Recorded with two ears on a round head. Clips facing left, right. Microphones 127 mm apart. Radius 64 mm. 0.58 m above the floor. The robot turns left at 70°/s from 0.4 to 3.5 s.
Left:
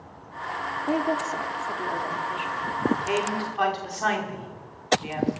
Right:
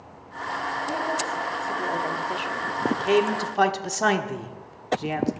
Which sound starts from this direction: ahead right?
A man speaking, at 2.9 s.